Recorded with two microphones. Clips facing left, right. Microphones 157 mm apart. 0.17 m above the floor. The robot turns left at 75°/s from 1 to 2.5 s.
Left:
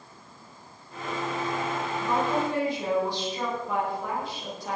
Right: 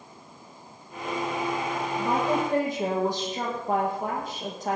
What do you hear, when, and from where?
2.0 s a woman speaking: 95° right, 6 m; by 4.8 s 130° right, 6 m